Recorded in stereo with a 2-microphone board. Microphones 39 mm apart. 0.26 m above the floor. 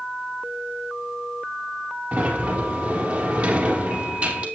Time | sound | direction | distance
2.1 | a sliding door | 45° right (ahead or behind) | 2.5 m